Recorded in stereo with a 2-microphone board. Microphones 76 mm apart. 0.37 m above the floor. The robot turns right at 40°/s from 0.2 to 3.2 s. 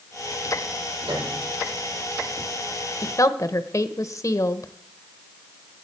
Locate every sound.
1.1 s a piano: 80° right, 7 m; by 1.5 s 65° right (ahead or behind), 7 m
3.0 s a woman speaking: 40° left (ahead or behind), 1.1 m; by 4.7 s 45° left (ahead or behind), 1.1 m